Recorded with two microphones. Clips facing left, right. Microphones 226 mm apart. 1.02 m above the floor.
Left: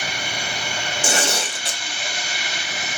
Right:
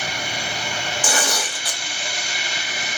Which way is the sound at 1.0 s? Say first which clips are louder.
Left 2 dB; 25° left (ahead or behind).